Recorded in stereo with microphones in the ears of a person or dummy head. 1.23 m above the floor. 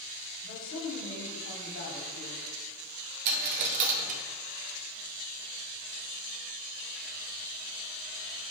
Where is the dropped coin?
35° right (ahead or behind), 0.6 m.